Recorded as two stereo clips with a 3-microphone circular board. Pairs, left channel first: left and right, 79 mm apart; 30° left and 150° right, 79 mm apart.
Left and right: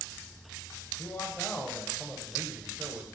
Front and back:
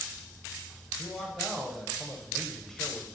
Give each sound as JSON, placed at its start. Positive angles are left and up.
{"t": 1.0, "sound": "a man speaking", "azimuth_deg": 110, "distance_m": 1.0}